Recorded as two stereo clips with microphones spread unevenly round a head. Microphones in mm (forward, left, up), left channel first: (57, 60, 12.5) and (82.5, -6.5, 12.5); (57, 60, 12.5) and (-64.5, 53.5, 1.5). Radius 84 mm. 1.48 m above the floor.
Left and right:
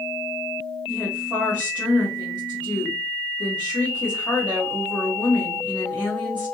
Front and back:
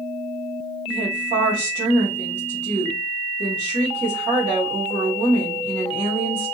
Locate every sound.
0.9 s a woman speaking: 160° right, 1.4 m